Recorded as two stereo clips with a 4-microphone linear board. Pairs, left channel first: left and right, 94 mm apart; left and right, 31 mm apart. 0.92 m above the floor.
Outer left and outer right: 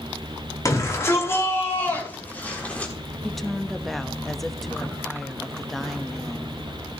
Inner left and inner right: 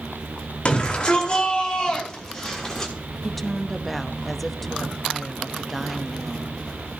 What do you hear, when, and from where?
0.7 s a shout: 35° left (ahead or behind), 4.5 m; by 2.9 s 15° left (ahead or behind), 5.5 m
3.2 s a woman speaking: 5° left (ahead or behind), 1.0 m